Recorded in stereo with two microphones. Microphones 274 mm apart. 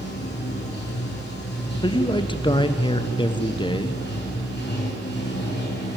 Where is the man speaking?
15° left (ahead or behind), 0.8 m.